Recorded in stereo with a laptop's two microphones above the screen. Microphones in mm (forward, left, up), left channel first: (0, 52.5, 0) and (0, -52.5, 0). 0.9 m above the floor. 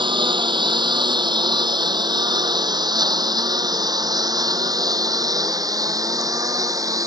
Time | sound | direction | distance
0.0 | a lawn mower | 50° right (ahead or behind) | ?